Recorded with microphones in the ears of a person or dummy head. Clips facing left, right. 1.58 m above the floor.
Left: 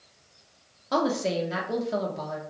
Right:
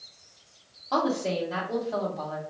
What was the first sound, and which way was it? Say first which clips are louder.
A woman speaking: left 1 dB; 20° left (ahead or behind).